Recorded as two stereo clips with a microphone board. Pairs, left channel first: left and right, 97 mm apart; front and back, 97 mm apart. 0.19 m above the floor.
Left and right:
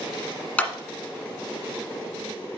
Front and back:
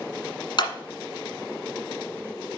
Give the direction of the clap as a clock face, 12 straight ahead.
11 o'clock.